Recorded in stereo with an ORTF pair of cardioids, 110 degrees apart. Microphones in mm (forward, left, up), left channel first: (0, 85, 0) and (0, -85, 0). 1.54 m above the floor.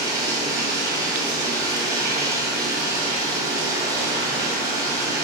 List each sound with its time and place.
0.0 s running water: 20° right, 2.5 m